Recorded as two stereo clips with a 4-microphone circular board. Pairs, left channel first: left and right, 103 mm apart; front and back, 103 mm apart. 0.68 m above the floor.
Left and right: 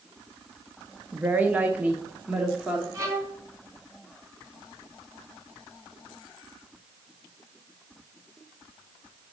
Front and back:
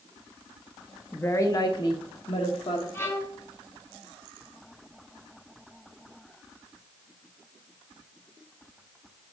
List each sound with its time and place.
1.1 s a woman speaking: 45° right, 0.6 m; by 2.8 s 10° right, 1.4 m
2.9 s a violin: 50° right, 1.5 m